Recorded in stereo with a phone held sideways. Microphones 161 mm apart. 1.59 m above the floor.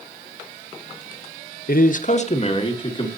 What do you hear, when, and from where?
1.7 s a man speaking: 65° left (ahead or behind), 0.7 m; by 3.1 s 30° left (ahead or behind), 1.7 m